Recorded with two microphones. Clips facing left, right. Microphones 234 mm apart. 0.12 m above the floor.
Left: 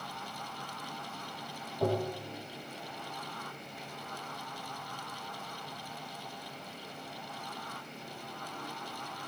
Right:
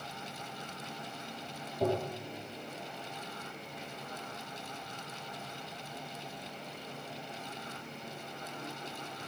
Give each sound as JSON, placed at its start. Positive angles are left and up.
{"t": 1.8, "sound": "tapping", "side_deg": -10, "distance_m": 4.0}